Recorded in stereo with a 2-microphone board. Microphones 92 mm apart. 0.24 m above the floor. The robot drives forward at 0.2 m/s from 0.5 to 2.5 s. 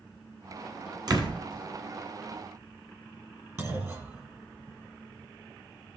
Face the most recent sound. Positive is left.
turn(degrees=-30)  # may be behind; listen again after turning